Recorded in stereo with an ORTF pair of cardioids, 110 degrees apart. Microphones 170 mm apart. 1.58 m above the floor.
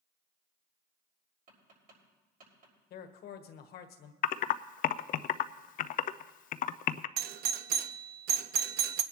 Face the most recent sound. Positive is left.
turn(degrees=-70)